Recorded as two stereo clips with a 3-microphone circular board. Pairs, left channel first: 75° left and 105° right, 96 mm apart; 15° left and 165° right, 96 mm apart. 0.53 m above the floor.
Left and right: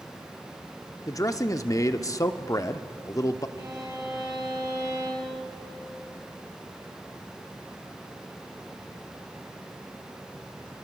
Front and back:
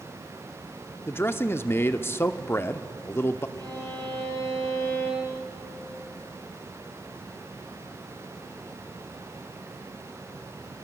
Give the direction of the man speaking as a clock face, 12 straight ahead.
10 o'clock.